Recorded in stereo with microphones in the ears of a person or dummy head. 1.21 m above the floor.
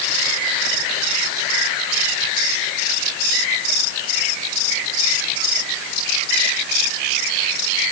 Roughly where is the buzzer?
I don't hear a buzzer.